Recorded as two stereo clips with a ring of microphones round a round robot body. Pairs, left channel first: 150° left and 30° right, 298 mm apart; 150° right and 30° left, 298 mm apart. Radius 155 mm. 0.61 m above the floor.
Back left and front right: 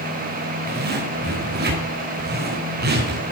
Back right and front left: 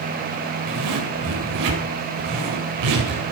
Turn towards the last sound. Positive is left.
turn(degrees=25)